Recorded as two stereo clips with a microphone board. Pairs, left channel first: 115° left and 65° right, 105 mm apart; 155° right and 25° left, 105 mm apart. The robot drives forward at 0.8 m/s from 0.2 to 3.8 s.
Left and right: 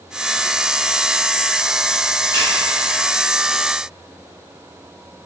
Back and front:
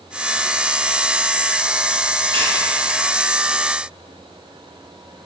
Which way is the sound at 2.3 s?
10° right.